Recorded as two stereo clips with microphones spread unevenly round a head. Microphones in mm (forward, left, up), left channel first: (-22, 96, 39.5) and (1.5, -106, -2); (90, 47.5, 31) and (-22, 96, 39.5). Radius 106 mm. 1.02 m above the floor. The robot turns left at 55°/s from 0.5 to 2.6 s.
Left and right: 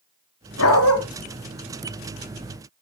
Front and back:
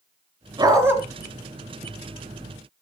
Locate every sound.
0.6 s a dog barking: 105° left, 3 m; by 1.0 s 85° left, 3 m